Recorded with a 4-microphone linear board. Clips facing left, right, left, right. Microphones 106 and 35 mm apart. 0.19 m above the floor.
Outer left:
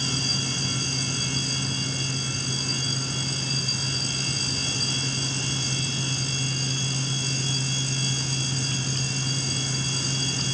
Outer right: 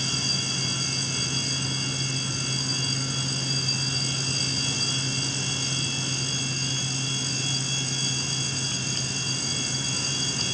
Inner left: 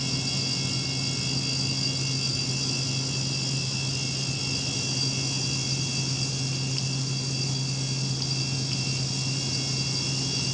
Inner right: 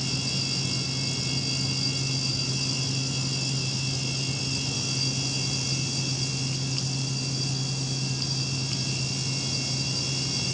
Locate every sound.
Only background noise.